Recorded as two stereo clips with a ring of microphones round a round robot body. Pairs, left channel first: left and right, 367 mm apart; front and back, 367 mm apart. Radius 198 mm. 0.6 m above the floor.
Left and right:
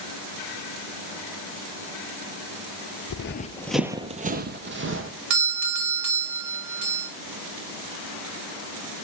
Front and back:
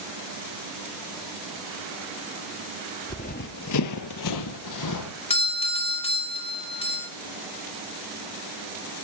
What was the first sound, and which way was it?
Running footsteps, 75° left.